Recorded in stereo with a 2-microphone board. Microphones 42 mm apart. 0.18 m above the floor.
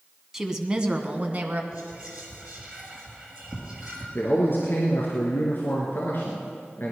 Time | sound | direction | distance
0.3 | a woman speaking | 10° right (ahead or behind) | 1.2 m
1.7 | whispering | 20° right (ahead or behind) | 4 m
4.2 | a man speaking | 55° left (ahead or behind) | 2 m